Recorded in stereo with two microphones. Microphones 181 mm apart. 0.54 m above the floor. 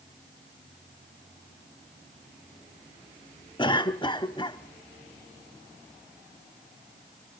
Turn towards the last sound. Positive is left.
turn(degrees=25)  # may be behind; listen again after turning